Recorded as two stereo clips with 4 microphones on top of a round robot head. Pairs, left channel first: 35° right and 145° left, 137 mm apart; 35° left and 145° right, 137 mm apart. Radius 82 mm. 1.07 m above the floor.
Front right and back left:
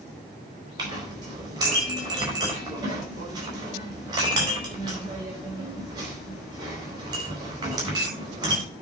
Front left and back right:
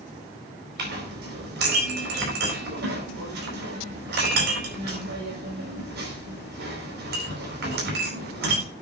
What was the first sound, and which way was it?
A clink, 150° right.